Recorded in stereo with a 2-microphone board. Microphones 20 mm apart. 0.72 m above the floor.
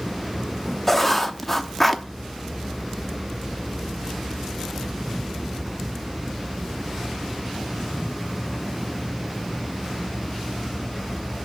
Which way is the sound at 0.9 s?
10° left (ahead or behind).